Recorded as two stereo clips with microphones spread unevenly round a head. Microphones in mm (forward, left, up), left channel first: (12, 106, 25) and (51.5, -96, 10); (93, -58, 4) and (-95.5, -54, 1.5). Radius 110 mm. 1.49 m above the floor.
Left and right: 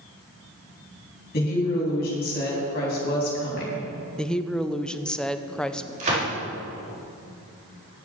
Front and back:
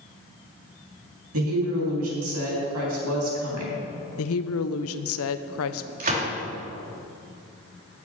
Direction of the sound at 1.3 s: 155° left.